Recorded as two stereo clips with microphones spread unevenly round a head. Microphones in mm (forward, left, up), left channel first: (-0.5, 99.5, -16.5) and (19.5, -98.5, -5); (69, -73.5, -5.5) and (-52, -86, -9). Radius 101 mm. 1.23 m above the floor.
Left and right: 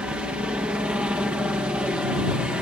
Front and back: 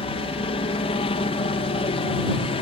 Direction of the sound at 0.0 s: Straight ahead.